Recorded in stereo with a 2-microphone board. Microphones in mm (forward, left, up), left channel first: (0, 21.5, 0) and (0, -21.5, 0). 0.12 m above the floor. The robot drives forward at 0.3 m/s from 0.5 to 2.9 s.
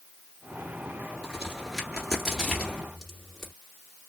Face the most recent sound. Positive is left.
turn(degrees=5)  # may be behind; listen again after turning